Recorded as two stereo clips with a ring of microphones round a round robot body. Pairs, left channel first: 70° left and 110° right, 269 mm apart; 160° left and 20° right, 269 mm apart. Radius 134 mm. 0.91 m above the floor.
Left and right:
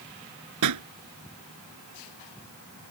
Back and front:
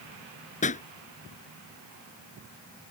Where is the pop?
140° right.